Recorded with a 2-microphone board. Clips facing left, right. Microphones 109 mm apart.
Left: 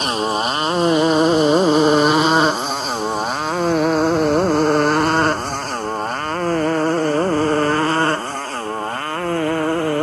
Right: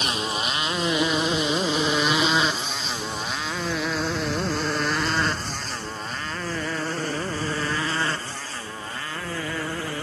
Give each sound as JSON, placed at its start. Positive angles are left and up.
{"t": 0.0, "sound": "a motorcycle", "side_deg": 45}